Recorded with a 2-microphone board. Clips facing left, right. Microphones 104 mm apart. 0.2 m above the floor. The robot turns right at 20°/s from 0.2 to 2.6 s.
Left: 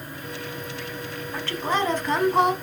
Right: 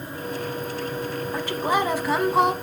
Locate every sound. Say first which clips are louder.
1.3 s a woman speaking: right 2 dB; 20° right (ahead or behind), 1.3 m; by 2.5 s centre (ahead or behind), 1.3 m